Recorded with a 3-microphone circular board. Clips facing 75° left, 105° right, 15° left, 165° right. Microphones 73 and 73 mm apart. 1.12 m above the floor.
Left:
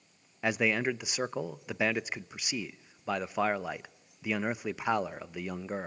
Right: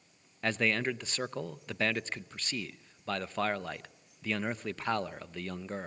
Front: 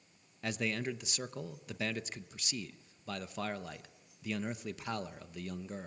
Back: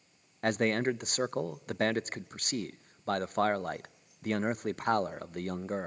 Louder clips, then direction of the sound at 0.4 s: Left 2 dB, back 8 dB; 155° left.